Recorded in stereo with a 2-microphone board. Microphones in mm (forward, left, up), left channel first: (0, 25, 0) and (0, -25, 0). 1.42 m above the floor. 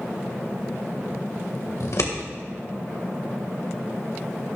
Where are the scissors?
80° left, 1.8 m.